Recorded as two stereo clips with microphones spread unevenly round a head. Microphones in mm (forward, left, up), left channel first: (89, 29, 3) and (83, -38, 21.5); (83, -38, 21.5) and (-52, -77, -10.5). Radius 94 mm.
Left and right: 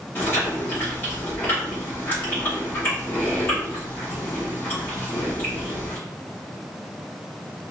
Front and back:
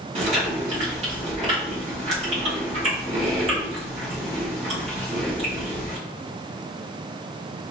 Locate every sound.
0.1 s chewing: 165° left, 1.2 m